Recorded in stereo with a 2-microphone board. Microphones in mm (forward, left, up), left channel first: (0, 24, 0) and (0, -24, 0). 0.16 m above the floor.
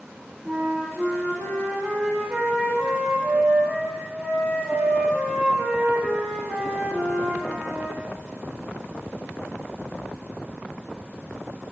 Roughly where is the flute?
Centre.